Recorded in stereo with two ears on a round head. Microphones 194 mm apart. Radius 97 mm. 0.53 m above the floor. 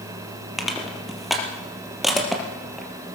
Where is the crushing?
Centre (ahead or behind), 3.5 m.